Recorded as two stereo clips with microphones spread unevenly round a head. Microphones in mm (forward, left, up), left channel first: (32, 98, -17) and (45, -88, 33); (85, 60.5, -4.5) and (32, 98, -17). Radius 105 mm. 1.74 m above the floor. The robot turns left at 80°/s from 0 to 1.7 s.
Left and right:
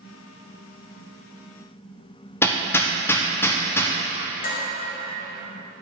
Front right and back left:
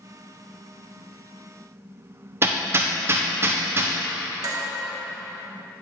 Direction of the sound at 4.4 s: 145° left.